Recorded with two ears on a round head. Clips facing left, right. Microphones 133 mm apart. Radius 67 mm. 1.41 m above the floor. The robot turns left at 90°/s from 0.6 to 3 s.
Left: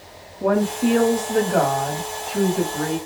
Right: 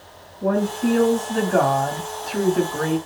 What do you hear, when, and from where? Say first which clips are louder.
0.4 s a woman speaking: left 1 dB; 90° left, 1.2 m; by 3.0 s 125° right, 1.2 m